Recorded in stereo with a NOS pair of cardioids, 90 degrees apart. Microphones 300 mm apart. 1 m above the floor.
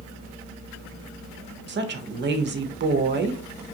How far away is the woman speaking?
About 0.7 m.